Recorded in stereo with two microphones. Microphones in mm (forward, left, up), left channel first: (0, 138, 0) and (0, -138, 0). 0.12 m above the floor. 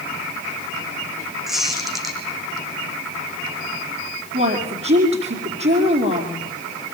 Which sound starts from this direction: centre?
A squeak, at 1.5 s.